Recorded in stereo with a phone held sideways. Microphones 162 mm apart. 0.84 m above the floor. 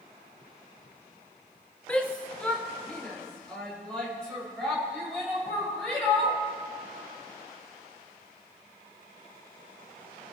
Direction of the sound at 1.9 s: 10° left (ahead or behind).